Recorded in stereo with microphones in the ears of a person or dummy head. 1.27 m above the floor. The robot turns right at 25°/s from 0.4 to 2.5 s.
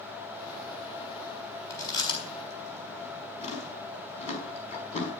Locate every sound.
1.7 s chewing: 20° left (ahead or behind), 5 m; by 5.1 s 40° left (ahead or behind), 5 m